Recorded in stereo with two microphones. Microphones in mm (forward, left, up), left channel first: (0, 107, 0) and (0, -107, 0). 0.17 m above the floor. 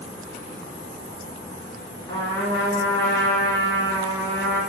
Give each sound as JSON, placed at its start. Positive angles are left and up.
{"t": 2.1, "sound": "a trumpet", "side_deg": 25, "distance_m": 1.4}